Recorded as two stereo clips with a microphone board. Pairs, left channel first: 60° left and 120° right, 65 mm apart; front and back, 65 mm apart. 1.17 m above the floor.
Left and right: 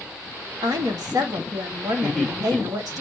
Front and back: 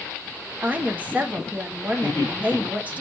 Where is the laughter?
20° right, 3.5 m.